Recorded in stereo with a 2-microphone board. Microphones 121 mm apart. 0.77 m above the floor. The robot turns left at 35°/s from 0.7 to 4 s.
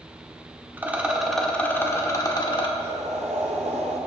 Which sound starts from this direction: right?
Boiling, at 2.8 s.